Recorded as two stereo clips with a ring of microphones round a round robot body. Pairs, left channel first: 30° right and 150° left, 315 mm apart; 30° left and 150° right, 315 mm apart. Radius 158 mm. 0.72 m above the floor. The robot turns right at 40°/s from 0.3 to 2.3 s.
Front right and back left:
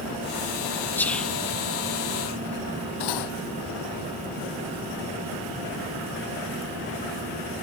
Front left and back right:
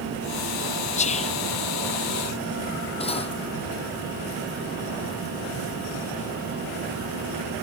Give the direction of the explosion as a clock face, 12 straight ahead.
No explosion in this recording.